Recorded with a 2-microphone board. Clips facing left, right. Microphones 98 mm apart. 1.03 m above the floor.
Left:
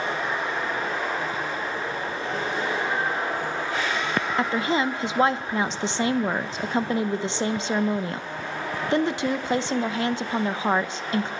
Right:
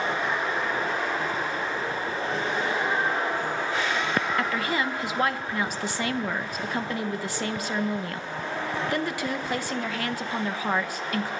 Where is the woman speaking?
25° left (ahead or behind), 0.7 m.